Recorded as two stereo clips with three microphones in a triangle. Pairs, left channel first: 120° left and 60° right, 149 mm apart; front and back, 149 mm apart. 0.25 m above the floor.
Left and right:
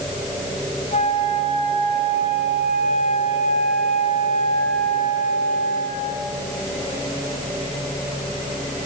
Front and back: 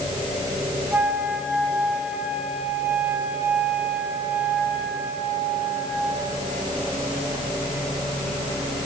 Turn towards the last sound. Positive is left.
turn(degrees=105)